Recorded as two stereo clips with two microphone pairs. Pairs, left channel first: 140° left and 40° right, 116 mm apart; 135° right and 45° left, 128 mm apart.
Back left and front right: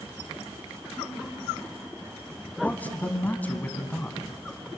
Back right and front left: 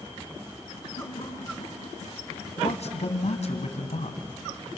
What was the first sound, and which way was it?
Laughter, 135° right.